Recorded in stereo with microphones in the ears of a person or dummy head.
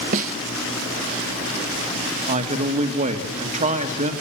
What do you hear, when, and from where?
0.1 s a snare drum: 45° right (ahead or behind), 1.0 m
2.3 s a man speaking: 40° right (ahead or behind), 1.9 m